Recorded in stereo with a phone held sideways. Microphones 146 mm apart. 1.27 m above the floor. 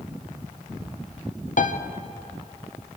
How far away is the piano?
About 0.7 m.